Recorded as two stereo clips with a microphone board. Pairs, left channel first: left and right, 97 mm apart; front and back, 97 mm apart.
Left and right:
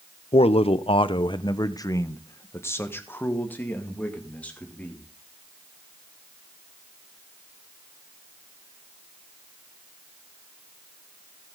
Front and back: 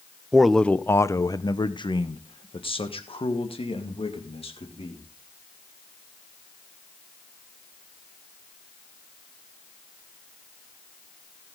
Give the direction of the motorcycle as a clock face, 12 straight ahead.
I don't hear a motorcycle.